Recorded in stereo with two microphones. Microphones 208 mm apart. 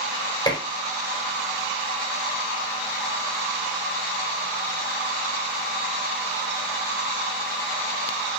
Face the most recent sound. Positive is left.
turn(degrees=20)  # may be behind; listen again after turning